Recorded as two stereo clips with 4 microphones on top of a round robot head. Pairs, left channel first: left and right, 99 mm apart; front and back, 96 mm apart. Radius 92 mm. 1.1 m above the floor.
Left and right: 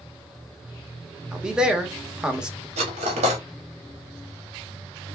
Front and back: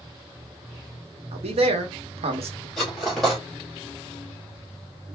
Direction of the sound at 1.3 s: 170° right.